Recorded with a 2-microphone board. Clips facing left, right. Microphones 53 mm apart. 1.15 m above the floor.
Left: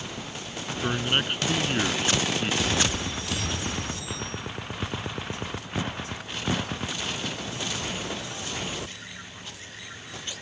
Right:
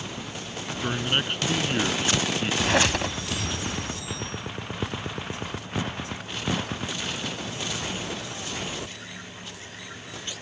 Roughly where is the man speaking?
Centre.